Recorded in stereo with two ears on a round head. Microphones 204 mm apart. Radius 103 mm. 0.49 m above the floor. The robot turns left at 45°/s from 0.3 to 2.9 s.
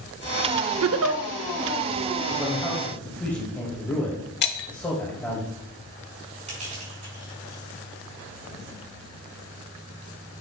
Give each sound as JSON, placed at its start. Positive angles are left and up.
{"t": 0.8, "sound": "a giggle", "side_deg": -70, "distance_m": 0.6}
{"t": 2.3, "sound": "a man speaking", "side_deg": -15, "distance_m": 2.0}
{"t": 4.4, "sound": "breaking glass", "side_deg": 50, "distance_m": 1.1}
{"t": 6.5, "sound": "crushing", "side_deg": -35, "distance_m": 4.5}